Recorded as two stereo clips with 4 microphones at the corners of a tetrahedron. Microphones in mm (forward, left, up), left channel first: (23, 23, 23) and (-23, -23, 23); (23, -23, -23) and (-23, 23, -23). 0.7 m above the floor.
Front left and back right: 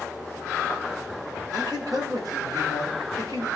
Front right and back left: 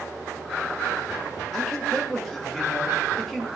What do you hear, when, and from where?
1.5 s a man speaking: 130° right, 2.5 m